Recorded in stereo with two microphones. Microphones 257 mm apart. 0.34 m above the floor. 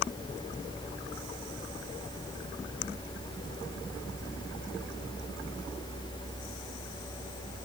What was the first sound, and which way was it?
Only background noise.